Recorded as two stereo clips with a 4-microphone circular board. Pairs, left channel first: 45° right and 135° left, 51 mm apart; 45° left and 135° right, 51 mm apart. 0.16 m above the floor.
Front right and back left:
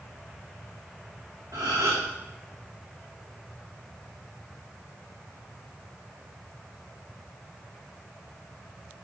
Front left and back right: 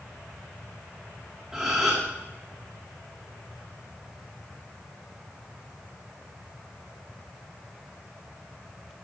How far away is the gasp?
About 2.5 m.